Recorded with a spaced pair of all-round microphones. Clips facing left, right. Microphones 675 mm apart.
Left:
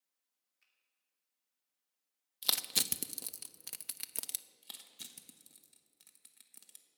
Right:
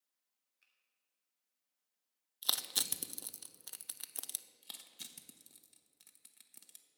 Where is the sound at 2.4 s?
55° left (ahead or behind), 0.6 m.